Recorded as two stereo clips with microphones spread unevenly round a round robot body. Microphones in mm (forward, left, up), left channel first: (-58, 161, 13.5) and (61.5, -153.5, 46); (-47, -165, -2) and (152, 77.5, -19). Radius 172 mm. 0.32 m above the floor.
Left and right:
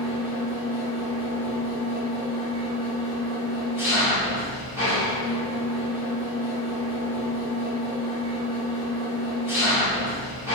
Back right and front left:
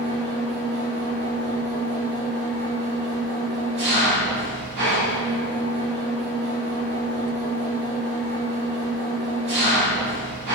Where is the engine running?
15° left, 1.6 m.